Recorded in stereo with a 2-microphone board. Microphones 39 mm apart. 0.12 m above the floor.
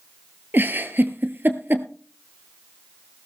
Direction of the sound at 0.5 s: 60° right (ahead or behind).